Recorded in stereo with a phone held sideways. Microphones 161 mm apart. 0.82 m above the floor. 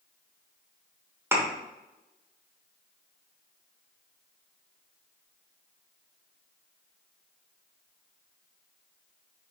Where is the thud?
15° right (ahead or behind), 1.0 m.